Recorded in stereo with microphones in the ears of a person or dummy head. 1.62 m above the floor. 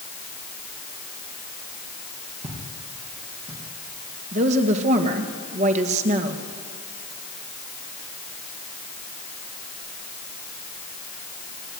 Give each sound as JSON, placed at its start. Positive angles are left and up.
{"t": 2.4, "sound": "footsteps", "side_deg": -30, "distance_m": 5.0}
{"t": 4.3, "sound": "a woman speaking", "side_deg": -40, "distance_m": 1.9}